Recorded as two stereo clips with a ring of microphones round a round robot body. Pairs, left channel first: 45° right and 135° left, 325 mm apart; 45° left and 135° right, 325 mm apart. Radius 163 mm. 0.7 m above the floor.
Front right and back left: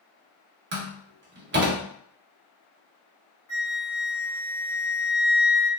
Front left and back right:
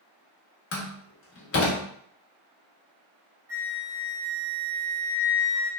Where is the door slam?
85° left, 0.9 m.